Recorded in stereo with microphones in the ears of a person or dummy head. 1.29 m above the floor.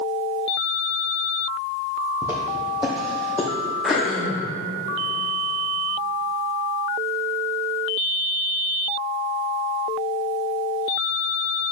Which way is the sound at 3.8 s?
Centre (ahead or behind).